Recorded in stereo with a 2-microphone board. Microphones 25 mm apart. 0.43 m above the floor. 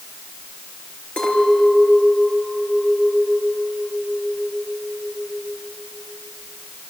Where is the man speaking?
No man speaking in this recording.